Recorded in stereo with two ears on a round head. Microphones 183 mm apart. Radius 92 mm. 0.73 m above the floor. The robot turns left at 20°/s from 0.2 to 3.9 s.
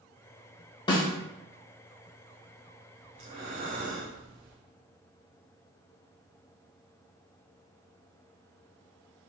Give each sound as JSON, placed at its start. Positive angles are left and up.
{"t": 0.9, "sound": "a snare drum", "side_deg": 25, "distance_m": 0.7}
{"t": 3.1, "sound": "breathing", "side_deg": -30, "distance_m": 1.1}